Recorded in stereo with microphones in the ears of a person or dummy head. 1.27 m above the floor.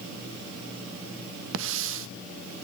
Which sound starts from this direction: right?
A hiss, at 1.5 s.